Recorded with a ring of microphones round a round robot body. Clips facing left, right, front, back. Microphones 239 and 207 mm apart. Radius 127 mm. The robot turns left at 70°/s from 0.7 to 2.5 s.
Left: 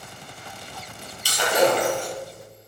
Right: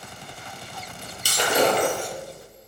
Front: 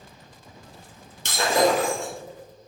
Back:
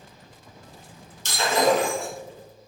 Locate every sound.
1.2 s breaking glass: 45° right, 3 m; by 2.1 s 105° right, 3 m